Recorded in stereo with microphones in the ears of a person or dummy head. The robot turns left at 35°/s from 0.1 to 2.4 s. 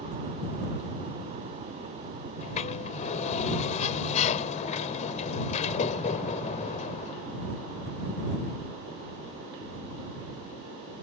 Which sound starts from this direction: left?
A sliding door, at 2.4 s.